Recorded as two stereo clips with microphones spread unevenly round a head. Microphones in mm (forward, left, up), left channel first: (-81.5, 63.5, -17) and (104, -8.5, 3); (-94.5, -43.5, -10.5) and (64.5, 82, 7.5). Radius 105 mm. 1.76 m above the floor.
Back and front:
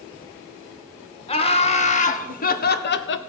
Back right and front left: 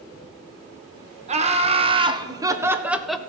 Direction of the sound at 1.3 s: 95° left.